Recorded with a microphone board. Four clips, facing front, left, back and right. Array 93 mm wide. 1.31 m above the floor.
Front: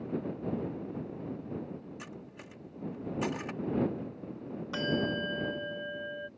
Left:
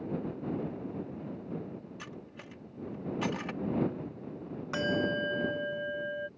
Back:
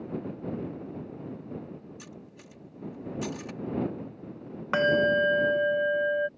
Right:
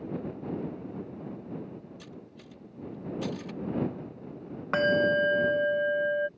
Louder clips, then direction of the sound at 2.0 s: Left 1 dB, front 1 dB; 55° left.